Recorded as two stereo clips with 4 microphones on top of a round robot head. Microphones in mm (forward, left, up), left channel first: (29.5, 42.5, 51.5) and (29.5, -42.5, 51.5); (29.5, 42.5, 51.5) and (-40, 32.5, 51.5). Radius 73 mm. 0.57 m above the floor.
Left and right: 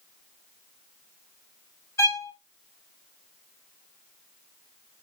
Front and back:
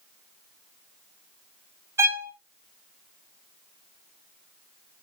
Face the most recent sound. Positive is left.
turn(degrees=140)